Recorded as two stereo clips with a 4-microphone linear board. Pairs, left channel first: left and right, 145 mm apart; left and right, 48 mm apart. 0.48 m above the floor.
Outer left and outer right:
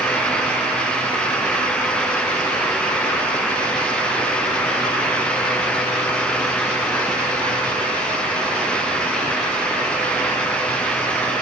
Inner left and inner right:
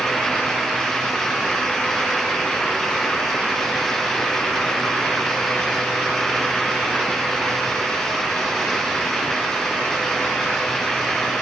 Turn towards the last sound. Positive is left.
No sound to turn to.